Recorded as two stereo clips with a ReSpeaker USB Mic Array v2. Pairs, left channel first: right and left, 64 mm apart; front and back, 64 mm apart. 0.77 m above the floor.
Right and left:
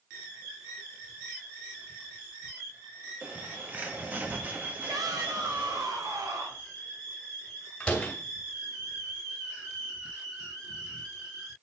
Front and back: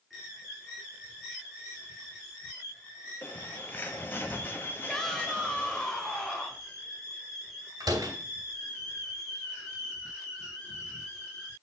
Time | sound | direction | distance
3.2 | a bird | 40° left | 1.3 m
4.9 | a shout | 80° left | 2.5 m
7.8 | a door slam | 165° right | 2.5 m